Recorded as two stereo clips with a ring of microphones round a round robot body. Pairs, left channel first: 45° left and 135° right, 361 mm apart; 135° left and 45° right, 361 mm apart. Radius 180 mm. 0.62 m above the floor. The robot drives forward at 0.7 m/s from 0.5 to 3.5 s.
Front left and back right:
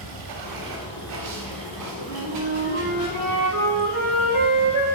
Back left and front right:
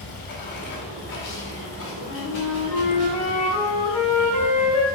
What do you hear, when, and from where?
0.0 s running water: 165° right, 1.3 m; by 5.0 s 175° right, 3.5 m
2.0 s a flute: 175° right, 1.6 m